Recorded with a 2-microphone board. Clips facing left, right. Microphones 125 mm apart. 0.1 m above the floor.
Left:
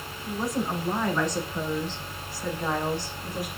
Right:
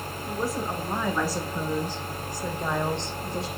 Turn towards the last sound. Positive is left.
turn(degrees=-30)  # may be behind; listen again after turning